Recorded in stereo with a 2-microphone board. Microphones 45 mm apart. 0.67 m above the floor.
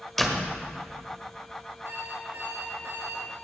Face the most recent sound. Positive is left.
turn(degrees=-75)  # may be behind; listen again after turning